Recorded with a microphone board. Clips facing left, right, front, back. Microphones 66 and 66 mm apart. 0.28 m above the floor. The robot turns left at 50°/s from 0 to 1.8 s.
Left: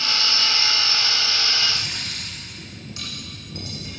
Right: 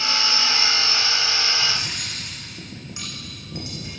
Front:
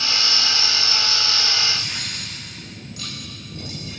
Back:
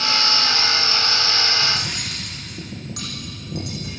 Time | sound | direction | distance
1.6 | cutlery clinking | 150° right | 9 m